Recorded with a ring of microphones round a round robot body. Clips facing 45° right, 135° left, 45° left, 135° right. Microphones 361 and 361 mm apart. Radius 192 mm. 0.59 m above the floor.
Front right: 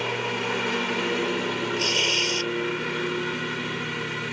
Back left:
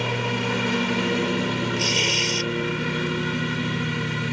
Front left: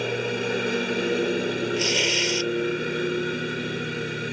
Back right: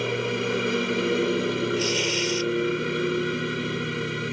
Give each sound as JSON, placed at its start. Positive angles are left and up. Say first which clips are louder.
{"t": 0.0, "sound": "a lawn mower", "louder": "back left 2 dB, even", "azimuth_deg": 140}
{"t": 1.8, "sound": "tearing paper", "louder": "back left 1 dB, even", "azimuth_deg": 75}